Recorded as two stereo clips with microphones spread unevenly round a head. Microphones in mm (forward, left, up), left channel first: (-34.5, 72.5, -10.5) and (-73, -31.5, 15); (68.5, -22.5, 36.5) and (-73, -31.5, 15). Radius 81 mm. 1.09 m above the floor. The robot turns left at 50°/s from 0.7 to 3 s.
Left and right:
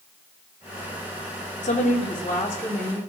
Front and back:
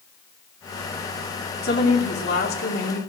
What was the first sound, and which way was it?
A woman speaking, 35° left.